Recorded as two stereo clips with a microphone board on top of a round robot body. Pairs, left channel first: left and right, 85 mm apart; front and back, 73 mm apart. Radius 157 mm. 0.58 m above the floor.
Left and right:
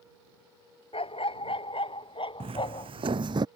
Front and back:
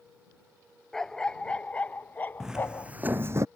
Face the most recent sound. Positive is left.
turn(degrees=-130)